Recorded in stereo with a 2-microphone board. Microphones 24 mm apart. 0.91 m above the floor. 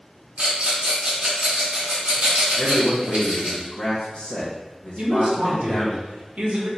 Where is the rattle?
55° right (ahead or behind), 1.3 m.